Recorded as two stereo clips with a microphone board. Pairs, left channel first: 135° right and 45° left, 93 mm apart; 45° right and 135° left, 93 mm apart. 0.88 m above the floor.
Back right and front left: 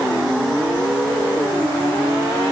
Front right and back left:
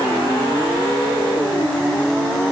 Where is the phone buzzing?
No phone buzzing in this recording.